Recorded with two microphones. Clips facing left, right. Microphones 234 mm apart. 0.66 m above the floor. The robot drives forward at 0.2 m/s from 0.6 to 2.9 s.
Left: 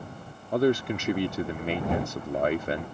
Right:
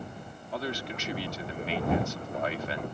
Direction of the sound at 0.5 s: 50° left (ahead or behind).